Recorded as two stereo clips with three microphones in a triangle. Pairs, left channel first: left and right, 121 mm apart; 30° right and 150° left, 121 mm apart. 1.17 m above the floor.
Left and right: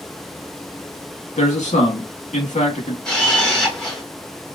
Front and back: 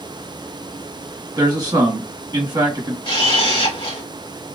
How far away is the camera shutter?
About 2.0 m.